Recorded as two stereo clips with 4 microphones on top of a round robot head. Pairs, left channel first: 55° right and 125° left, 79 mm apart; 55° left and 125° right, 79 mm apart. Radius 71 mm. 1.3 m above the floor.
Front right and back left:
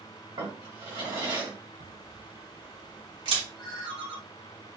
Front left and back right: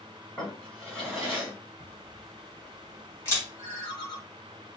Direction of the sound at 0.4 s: 140° left.